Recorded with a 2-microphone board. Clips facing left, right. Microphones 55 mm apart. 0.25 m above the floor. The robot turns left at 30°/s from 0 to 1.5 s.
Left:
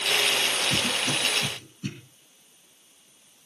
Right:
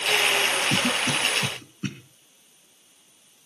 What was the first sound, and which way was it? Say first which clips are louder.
A cough: right 3 dB; 65° right (ahead or behind).